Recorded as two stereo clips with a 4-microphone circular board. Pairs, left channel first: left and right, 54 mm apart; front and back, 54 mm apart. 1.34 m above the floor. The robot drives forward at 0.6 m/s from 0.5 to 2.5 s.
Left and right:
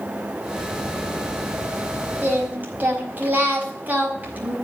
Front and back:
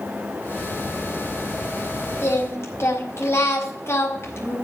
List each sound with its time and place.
2.2 s singing: 35° right, 5 m